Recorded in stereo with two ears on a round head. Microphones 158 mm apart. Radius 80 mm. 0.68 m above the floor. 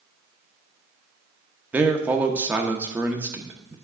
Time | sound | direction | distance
1.7 | a man speaking | 10° right (ahead or behind) | 0.9 m